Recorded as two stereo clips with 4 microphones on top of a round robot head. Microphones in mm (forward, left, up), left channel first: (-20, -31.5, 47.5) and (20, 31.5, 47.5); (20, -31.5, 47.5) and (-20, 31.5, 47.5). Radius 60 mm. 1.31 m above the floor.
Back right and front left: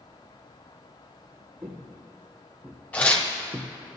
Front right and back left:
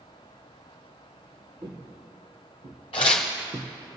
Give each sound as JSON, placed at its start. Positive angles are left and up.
{"t": 1.6, "sound": "footsteps", "azimuth_deg": 105, "distance_m": 2.5}
{"t": 2.9, "sound": "tearing paper", "azimuth_deg": -55, "distance_m": 1.3}